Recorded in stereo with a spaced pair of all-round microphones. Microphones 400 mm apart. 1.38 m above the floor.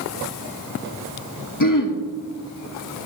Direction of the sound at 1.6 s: 55° left (ahead or behind).